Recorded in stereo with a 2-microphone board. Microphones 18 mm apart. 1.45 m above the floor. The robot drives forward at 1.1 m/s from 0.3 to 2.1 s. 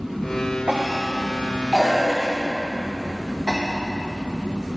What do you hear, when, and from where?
0.7 s a cough: 70° right (ahead or behind), 0.9 m; by 3.6 s 35° right (ahead or behind), 1.6 m